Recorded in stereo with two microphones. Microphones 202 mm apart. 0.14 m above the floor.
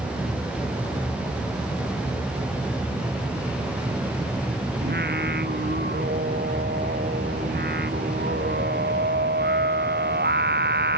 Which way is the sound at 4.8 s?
55° right (ahead or behind).